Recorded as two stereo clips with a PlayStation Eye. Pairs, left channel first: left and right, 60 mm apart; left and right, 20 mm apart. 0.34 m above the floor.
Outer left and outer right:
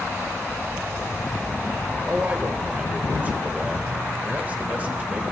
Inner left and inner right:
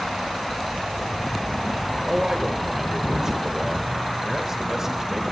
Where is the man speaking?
30° right (ahead or behind), 0.9 m.